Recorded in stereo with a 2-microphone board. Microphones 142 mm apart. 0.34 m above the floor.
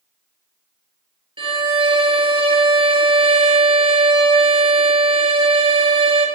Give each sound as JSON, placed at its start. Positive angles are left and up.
{"t": 1.4, "sound": "a violin", "side_deg": -35, "distance_m": 1.4}